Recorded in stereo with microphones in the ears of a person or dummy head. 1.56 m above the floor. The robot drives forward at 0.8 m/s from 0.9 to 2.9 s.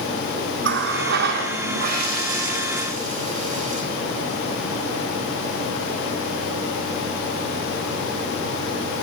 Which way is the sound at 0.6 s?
65° right (ahead or behind).